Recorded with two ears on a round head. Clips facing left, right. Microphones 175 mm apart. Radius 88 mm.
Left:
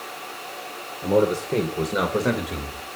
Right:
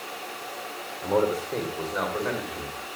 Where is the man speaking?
20° left (ahead or behind), 2 m; by 3.0 s 60° left (ahead or behind), 3 m.